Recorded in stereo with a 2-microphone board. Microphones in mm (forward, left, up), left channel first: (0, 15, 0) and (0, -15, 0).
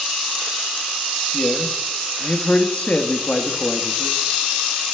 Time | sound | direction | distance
1.3 | a man speaking | 40° left (ahead or behind) | 0.7 m